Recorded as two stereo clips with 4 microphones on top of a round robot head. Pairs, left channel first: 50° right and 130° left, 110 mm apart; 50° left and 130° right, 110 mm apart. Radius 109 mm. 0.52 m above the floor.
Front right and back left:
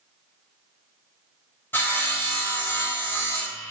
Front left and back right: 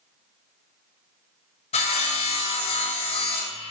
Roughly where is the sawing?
Ahead left.